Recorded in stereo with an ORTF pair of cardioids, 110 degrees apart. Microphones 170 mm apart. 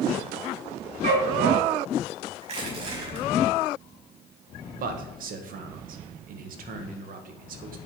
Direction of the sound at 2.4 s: 40° right.